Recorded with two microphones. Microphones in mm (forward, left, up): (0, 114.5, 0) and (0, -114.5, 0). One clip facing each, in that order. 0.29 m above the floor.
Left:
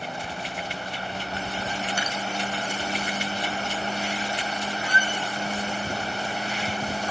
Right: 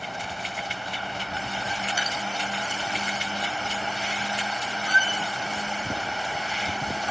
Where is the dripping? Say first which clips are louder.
Left 2 dB; 55° left (ahead or behind), 6.5 m.